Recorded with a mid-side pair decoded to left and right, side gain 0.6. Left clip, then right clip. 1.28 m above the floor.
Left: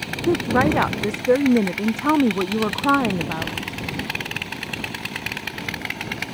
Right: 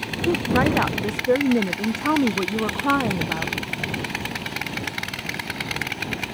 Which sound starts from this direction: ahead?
A woman speaking, at 0.3 s.